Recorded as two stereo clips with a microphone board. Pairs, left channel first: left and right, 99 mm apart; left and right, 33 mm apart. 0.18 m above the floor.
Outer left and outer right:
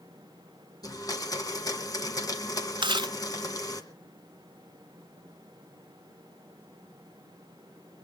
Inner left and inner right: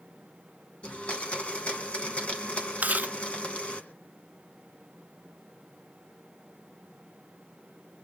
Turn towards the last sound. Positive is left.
turn(degrees=-55)  # may be behind; listen again after turning